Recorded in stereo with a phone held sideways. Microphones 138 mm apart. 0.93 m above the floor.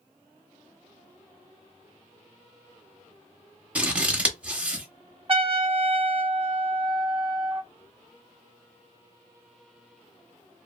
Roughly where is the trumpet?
Right.